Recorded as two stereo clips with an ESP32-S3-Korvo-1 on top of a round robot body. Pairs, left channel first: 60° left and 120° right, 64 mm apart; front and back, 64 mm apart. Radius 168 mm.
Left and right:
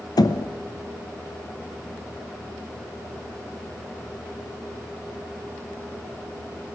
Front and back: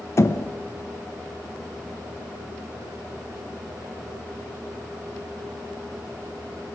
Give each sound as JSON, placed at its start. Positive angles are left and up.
{"t": 0.2, "sound": "knocking", "azimuth_deg": 45, "distance_m": 1.2}